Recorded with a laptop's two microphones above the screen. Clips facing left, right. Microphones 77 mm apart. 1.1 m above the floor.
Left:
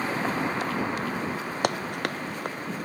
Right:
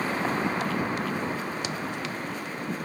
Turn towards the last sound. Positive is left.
turn(degrees=55)  # may be behind; listen again after turning